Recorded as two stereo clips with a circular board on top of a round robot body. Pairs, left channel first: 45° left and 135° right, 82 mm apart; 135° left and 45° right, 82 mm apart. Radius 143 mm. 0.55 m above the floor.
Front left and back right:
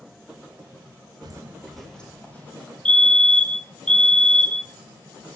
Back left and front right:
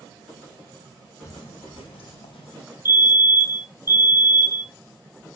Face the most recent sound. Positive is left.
turn(degrees=-25)